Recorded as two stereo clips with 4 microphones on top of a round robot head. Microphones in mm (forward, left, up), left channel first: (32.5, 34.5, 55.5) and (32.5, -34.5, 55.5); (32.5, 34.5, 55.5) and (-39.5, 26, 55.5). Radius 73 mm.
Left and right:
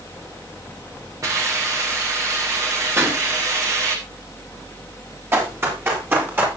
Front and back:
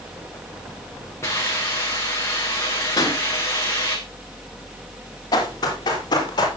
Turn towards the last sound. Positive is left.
turn(degrees=-30)